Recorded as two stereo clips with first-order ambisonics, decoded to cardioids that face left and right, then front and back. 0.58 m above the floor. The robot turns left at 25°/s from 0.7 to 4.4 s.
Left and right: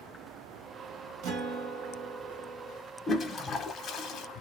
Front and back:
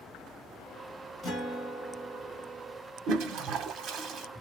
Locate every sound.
1.2 s a guitar: 80° right, 1.5 m; by 2.8 s 120° right, 1.5 m
3.1 s a toilet flushing: 160° left, 0.6 m; by 4.3 s 130° left, 0.6 m